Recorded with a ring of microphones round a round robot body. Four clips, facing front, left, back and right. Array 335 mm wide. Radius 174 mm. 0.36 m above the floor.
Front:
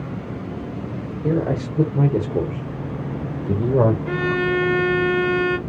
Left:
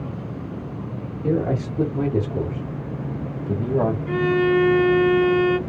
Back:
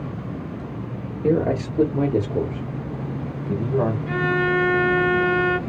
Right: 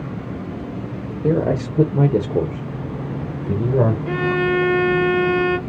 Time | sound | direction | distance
1.2 | a man speaking | 120° right | 1.6 m
4.1 | a violin | 50° right | 1.0 m